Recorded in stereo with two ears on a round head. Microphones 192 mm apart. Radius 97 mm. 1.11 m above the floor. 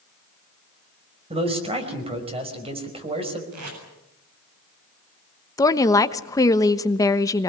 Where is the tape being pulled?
80° right, 8 m.